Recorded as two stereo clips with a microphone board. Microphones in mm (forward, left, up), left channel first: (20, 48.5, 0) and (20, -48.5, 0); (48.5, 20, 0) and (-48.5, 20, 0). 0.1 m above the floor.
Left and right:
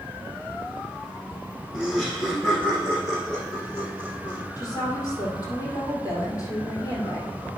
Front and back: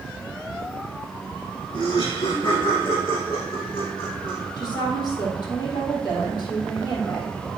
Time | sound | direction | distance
1.7 | laughter | straight ahead | 2.0 m
4.6 | a woman speaking | 40° left | 4 m